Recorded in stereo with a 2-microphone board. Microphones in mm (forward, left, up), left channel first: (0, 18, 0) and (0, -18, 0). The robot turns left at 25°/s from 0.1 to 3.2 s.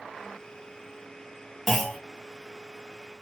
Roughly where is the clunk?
Centre.